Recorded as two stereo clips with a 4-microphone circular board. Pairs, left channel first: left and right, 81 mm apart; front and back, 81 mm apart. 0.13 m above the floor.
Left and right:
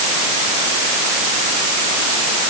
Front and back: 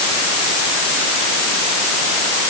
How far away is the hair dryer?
I don't hear a hair dryer.